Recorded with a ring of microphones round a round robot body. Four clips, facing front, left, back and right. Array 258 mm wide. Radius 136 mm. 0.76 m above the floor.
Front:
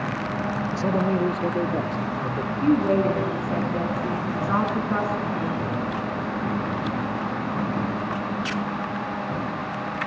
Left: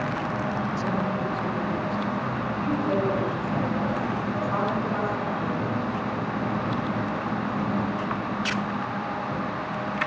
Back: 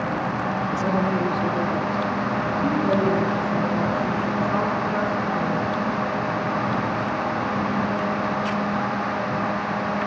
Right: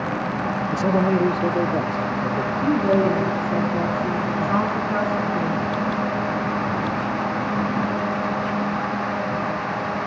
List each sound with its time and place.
0.7 s a man speaking: 105° right, 0.7 m; by 2.5 s 65° right, 2.5 m
2.6 s a woman speaking: 35° right, 9 m